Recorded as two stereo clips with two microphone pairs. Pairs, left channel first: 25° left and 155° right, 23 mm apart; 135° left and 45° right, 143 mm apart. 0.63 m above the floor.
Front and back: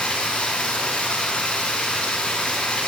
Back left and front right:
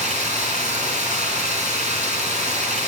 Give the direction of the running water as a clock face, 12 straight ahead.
12 o'clock.